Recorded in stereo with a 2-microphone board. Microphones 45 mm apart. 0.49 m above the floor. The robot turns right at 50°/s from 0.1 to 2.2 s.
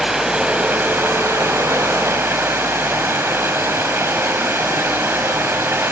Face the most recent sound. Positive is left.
turn(degrees=-65)